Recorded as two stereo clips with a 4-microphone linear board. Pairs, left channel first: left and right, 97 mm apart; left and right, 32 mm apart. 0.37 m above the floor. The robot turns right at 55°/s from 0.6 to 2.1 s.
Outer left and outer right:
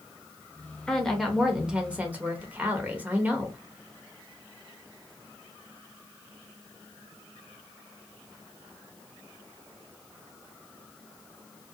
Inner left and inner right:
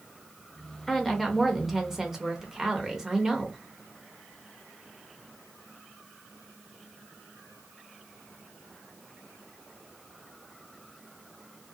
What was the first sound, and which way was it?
A woman speaking, 5° left (ahead or behind).